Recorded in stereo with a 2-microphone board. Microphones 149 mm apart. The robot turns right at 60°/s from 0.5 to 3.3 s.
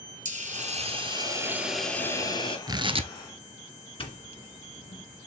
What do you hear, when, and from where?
0.2 s a hiss: 75° right, 1.9 m; by 2.6 s 45° left, 1.9 m
2.7 s tearing paper: 25° right (ahead or behind), 0.7 m; by 3.1 s 50° right (ahead or behind), 0.7 m
4.0 s a doorbell: 40° left (ahead or behind), 2 m